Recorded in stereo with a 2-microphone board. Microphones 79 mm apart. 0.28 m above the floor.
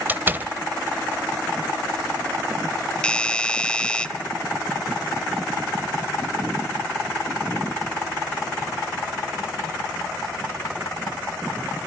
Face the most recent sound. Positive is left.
turn(degrees=10)  # may be behind; listen again after turning